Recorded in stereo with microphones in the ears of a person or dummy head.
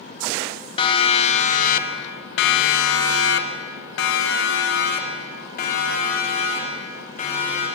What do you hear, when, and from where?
0.8 s a siren: 25° left (ahead or behind), 2 m; by 7.7 s 45° left (ahead or behind), 5.5 m